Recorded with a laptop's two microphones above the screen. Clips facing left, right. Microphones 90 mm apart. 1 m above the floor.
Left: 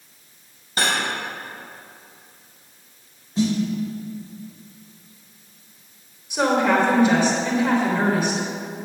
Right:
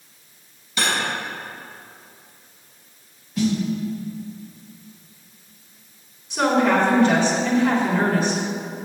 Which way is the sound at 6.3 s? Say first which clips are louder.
Right 1 dB; 10° left (ahead or behind).